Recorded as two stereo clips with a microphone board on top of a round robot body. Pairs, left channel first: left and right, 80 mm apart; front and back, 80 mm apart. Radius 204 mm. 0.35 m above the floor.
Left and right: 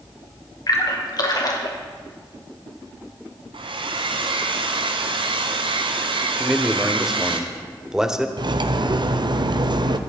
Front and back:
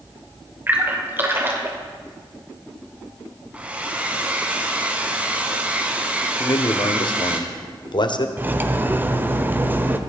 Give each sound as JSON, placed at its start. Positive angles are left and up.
{"t": 0.7, "sound": "a splash", "azimuth_deg": 120, "distance_m": 2.5}
{"t": 3.5, "sound": "a hair dryer", "azimuth_deg": -105, "distance_m": 1.1}
{"t": 6.4, "sound": "a man speaking", "azimuth_deg": -10, "distance_m": 1.6}
{"t": 8.4, "sound": "cutlery clinking", "azimuth_deg": -115, "distance_m": 1.0}